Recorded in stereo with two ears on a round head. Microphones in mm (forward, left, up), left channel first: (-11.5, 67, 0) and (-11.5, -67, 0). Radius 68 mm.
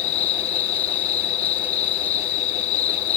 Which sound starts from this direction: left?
An insect, at 0.0 s.